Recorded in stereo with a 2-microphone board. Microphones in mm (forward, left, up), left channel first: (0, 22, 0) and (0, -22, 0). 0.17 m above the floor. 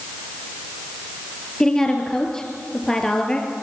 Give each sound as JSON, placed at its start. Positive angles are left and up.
{"t": 1.6, "sound": "a woman speaking", "side_deg": 15, "distance_m": 3.0}